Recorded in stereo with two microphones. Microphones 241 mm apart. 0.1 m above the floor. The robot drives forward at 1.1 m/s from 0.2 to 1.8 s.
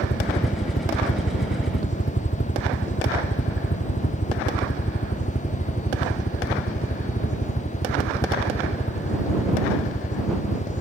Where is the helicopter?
45° left (ahead or behind); by 10.8 s 35° left (ahead or behind).